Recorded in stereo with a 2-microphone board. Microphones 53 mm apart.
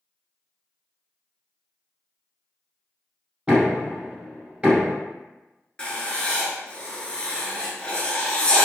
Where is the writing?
20° left (ahead or behind), 0.6 m.